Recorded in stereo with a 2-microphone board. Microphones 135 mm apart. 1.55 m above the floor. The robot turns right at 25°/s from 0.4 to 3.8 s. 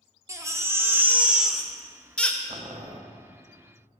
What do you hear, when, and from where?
0.3 s a baby crying: 35° right, 0.6 m; by 2.4 s 15° left, 0.6 m
2.5 s boiling: 25° right (ahead or behind), 0.8 m; by 3.0 s 35° right (ahead or behind), 0.8 m